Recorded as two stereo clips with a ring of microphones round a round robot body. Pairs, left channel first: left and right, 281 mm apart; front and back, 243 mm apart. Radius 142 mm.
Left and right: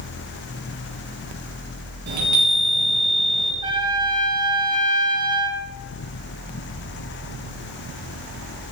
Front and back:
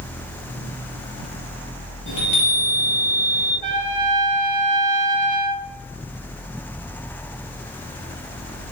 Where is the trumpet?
165° right, 1.1 m.